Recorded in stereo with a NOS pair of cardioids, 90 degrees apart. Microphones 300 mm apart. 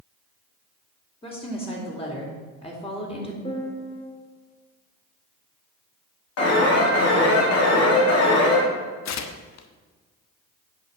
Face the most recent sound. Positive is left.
turn(degrees=60)